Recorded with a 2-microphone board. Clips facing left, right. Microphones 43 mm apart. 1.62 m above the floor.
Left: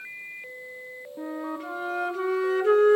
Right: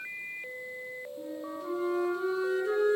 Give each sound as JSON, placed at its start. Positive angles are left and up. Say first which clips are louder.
{"t": 1.2, "sound": "a flute", "louder": "left 8 dB", "side_deg": 70, "distance_m": 1.6}